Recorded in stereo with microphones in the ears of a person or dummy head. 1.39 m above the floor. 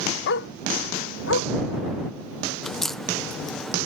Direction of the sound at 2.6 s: 5° left (ahead or behind).